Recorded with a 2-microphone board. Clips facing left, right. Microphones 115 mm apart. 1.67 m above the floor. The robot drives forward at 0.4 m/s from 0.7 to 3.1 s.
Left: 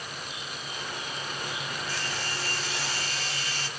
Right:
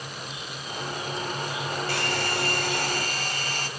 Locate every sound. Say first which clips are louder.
1.9 s a hair dryer: right 7 dB; 65° right (ahead or behind), 0.7 m; by 3.7 s 50° right (ahead or behind), 0.9 m